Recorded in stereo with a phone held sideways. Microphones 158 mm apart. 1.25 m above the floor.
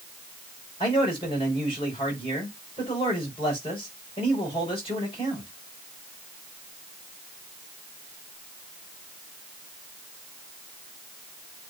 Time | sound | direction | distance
0.8 | a man speaking | 35° left (ahead or behind) | 5.5 m